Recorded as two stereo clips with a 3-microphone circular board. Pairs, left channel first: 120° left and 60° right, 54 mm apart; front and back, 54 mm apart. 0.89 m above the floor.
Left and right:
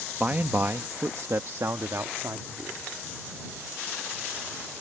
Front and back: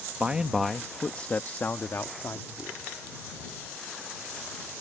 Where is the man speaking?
115° right; by 2.8 s 25° right.